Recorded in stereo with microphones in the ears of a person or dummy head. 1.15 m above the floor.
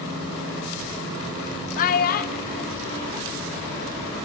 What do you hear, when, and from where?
1.8 s a child speaking: 45° left (ahead or behind), 1.0 m; by 4.1 s 60° left (ahead or behind), 2.5 m